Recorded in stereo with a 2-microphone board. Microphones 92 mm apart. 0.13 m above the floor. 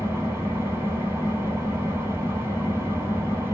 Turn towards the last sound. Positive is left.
turn(degrees=-25)  # may be behind; listen again after turning